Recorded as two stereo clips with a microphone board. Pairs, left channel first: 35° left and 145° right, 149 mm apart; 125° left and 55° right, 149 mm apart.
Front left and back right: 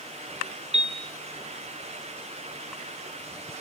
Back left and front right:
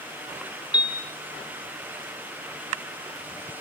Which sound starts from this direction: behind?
A piano, at 0.7 s.